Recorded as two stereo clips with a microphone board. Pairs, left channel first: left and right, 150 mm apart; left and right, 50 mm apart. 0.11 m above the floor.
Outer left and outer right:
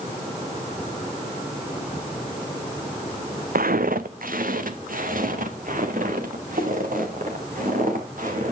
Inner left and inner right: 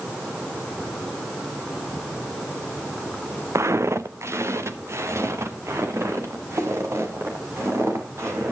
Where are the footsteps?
70° right (ahead or behind), 0.7 m; by 8.5 s 65° right (ahead or behind), 4.5 m.